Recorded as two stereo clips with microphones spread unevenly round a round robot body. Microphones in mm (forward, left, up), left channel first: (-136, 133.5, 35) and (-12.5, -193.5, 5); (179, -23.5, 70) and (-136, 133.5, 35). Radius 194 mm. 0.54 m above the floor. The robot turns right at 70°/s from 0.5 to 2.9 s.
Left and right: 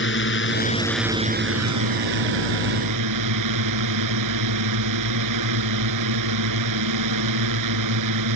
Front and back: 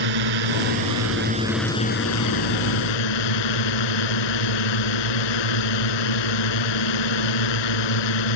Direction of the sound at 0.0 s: 165° left.